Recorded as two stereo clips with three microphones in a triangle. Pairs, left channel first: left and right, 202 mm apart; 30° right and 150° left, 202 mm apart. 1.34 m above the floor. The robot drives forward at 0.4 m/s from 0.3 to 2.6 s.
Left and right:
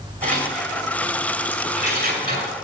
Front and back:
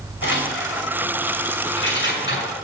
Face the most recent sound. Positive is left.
turn(degrees=-55)